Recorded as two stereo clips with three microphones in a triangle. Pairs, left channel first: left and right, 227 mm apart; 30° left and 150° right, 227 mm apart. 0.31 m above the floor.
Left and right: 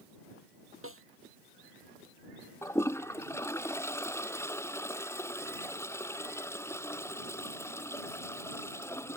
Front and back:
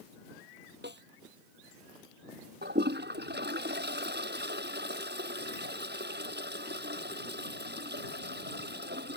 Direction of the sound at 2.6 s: 170° left.